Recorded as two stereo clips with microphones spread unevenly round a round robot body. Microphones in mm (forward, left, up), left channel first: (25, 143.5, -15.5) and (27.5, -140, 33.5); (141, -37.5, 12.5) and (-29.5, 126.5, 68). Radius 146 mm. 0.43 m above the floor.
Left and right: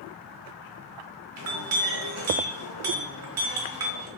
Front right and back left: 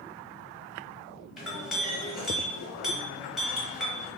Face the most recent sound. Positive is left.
turn(degrees=-125)